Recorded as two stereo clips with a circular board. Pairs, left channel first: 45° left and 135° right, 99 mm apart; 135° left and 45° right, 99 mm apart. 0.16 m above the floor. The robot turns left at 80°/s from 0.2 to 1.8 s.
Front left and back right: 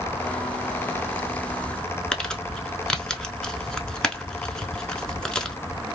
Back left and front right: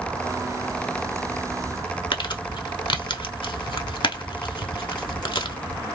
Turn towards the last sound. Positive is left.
turn(degrees=125)